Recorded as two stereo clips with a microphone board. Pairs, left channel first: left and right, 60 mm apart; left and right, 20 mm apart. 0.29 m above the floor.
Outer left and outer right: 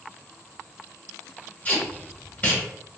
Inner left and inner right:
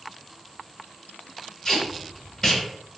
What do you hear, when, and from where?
1.6 s tape being pulled: 30° left (ahead or behind), 1.1 m